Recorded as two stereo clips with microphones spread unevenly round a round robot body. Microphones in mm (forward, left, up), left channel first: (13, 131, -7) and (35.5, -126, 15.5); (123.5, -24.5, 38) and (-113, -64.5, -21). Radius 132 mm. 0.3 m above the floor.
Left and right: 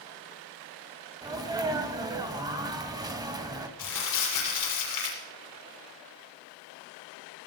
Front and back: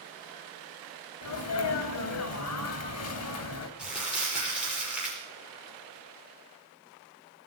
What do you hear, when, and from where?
1.2 s a sneeze: 10° right, 2 m
3.8 s crumpling: 105° left, 6.5 m